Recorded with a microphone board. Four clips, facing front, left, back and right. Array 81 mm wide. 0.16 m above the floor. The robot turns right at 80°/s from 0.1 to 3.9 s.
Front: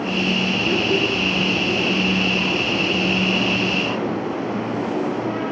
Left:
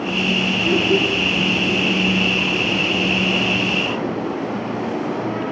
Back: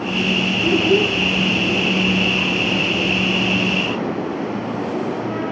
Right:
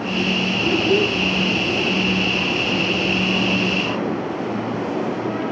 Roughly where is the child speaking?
Behind.